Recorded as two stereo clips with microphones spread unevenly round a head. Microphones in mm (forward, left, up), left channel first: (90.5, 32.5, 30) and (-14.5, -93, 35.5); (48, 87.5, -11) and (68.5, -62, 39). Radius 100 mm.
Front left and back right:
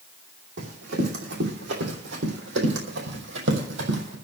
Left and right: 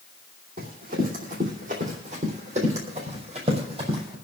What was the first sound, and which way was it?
Running footsteps, 115° right.